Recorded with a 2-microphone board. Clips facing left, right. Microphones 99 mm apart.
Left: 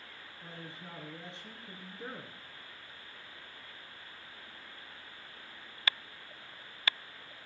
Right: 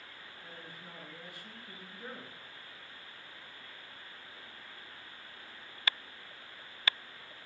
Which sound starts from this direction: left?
A man speaking, at 0.4 s.